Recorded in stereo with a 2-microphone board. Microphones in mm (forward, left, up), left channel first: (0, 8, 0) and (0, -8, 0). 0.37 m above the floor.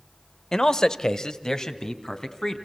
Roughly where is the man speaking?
Left.